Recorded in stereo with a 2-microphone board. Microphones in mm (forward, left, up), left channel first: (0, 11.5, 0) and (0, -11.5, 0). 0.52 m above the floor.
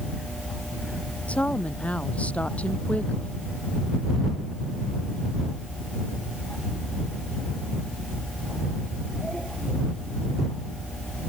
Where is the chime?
I don't hear a chime.